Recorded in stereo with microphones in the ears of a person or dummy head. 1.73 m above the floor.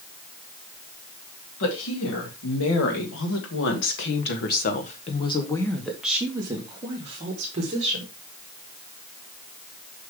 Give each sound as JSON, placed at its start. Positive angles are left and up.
{"t": 1.6, "sound": "a woman speaking", "side_deg": 80, "distance_m": 3.5}